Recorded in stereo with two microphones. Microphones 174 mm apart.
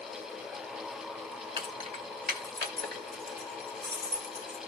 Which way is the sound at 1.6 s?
30° right (ahead or behind).